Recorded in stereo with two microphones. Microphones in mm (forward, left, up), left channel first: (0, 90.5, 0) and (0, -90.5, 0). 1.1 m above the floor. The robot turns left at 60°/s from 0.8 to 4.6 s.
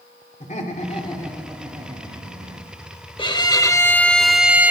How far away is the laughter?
About 2.5 m.